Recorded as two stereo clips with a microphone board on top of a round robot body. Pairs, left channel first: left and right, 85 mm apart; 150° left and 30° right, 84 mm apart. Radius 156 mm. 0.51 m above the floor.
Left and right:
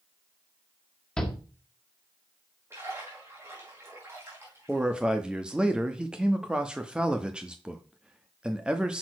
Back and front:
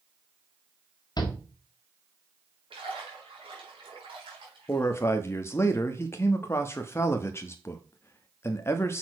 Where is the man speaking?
165° right, 1.1 m.